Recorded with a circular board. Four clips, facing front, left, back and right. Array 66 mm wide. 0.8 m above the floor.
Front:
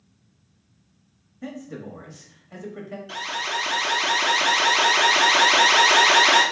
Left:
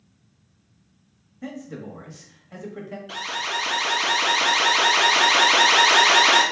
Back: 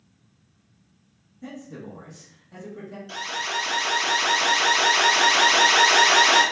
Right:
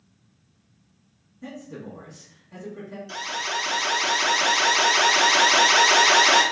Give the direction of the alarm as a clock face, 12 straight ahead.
10 o'clock.